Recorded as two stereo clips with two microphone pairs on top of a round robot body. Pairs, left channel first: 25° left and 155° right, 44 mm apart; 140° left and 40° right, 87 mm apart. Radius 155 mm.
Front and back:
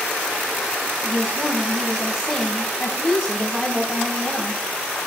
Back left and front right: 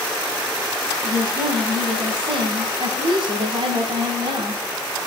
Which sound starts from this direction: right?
A woman speaking, at 1.0 s.